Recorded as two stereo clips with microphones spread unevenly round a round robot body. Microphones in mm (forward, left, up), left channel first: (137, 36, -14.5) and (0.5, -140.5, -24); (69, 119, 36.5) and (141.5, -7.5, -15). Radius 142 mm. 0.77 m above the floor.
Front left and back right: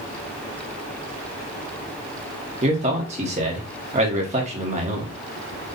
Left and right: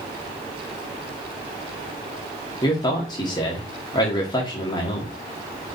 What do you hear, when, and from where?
2.6 s a man speaking: 160° right, 1.1 m